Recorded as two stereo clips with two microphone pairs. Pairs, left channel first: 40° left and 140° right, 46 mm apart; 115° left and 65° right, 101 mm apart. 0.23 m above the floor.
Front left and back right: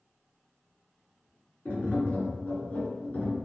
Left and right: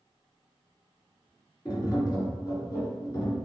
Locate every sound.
1.6 s tapping: 75° left, 1.9 m